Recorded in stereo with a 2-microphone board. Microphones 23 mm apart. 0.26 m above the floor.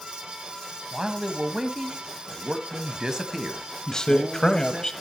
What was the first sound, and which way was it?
A man speaking, 25° right (ahead or behind).